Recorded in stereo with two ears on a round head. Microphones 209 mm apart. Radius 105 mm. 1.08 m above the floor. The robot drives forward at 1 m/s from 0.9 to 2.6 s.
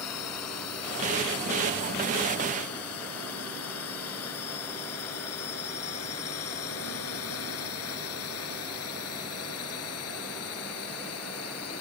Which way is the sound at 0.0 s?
85° left.